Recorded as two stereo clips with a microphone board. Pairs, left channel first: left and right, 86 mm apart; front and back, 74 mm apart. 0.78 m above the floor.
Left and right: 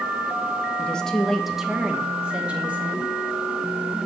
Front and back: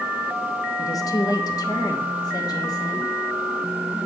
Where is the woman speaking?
20° left, 0.7 m; by 3.1 s 20° right, 1.8 m.